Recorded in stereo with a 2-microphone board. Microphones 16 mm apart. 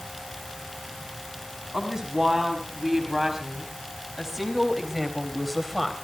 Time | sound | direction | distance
1.7 | a woman speaking | 40° right (ahead or behind) | 6 m